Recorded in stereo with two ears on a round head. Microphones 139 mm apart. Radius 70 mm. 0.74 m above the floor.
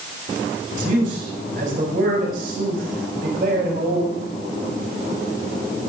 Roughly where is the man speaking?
Right.